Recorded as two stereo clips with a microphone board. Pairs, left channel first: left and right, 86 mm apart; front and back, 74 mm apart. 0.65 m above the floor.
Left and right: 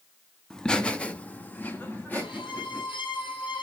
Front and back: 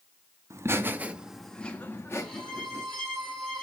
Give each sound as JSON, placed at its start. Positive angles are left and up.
{"t": 0.5, "sound": "laughter", "azimuth_deg": 170, "distance_m": 1.1}
{"t": 2.2, "sound": "a violin", "azimuth_deg": 85, "distance_m": 6.5}